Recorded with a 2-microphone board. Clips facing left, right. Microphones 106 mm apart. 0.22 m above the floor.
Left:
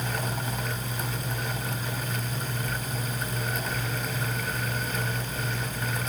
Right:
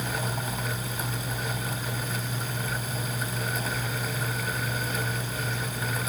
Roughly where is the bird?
No bird in this recording.